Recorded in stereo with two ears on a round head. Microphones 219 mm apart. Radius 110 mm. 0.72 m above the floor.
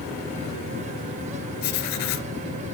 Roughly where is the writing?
Left.